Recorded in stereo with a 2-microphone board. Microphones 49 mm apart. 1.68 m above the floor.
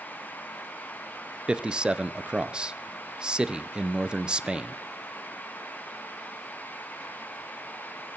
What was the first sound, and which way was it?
A man speaking, 15° right (ahead or behind).